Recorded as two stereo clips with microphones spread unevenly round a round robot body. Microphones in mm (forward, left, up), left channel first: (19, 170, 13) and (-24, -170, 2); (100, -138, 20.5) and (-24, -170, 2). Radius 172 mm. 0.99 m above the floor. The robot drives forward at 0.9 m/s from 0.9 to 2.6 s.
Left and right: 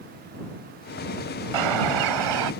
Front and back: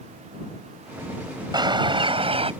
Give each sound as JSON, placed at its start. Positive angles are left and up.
{"t": 1.5, "sound": "a bird", "azimuth_deg": -105}